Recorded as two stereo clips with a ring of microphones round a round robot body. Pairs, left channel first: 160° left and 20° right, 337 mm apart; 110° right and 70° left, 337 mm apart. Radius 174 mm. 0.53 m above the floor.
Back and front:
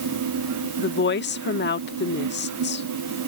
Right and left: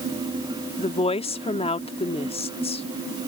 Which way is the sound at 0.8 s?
175° right.